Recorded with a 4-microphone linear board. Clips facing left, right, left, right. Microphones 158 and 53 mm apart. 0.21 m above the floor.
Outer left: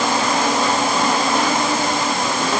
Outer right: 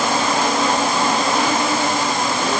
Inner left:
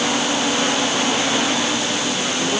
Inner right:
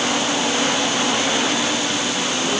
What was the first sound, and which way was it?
Only background noise.